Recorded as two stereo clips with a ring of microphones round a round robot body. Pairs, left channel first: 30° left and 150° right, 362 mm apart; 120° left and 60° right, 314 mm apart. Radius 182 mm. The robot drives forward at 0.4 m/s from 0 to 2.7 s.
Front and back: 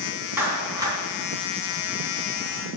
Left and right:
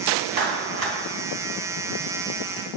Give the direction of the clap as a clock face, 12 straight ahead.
2 o'clock.